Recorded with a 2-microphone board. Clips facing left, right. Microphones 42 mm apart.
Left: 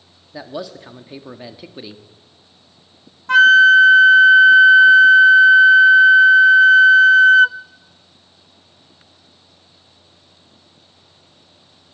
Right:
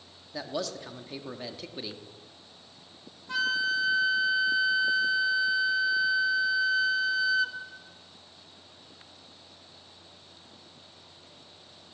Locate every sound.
0.3 s a man speaking: 15° left (ahead or behind), 1.3 m
3.3 s a flute: 85° left, 0.6 m